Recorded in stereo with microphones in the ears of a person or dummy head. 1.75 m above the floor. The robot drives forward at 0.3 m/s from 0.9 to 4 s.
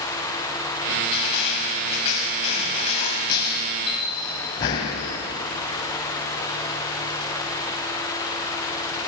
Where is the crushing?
20° left (ahead or behind), 1.7 m.